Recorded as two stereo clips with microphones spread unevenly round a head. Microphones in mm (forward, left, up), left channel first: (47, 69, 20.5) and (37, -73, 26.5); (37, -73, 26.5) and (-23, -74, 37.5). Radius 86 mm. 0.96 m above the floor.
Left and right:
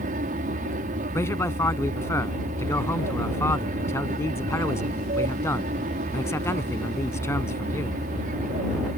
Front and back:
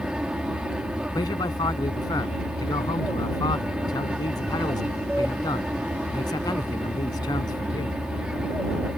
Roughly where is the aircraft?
Right.